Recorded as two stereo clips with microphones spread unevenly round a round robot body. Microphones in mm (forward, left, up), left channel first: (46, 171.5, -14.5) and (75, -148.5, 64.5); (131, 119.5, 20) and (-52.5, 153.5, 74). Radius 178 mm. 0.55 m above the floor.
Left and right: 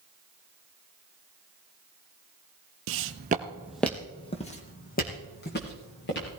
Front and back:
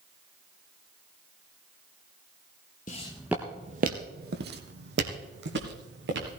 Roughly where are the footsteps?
Right.